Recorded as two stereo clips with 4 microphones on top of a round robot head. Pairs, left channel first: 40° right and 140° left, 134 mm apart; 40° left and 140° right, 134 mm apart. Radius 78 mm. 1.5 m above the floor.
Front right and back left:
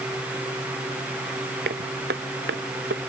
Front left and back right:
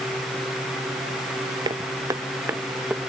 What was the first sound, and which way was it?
Footsteps, 160° left.